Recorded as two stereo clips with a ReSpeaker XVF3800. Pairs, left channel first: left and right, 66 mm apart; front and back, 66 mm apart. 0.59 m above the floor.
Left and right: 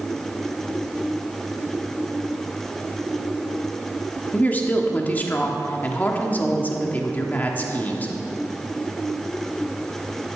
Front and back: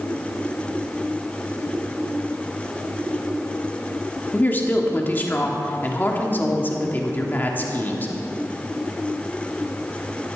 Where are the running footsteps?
I don't hear running footsteps.